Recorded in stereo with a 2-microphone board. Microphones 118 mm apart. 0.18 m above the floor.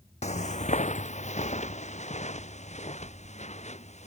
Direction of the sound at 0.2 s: 75° left (ahead or behind).